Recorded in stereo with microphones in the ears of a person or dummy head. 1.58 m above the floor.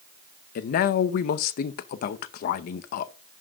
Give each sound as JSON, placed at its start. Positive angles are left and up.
{"t": 0.6, "sound": "a man speaking", "side_deg": 50, "distance_m": 0.7}